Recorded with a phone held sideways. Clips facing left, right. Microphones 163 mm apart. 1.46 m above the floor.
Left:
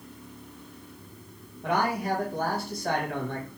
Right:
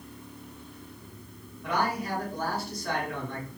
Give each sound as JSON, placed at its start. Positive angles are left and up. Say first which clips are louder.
{"t": 1.6, "sound": "a man speaking", "louder": "left 3 dB", "side_deg": 50, "distance_m": 1.5}